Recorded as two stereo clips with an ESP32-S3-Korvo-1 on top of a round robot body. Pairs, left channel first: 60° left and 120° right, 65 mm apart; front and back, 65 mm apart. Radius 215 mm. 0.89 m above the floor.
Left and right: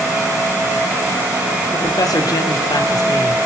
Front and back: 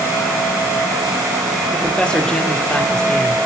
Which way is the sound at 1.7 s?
75° left.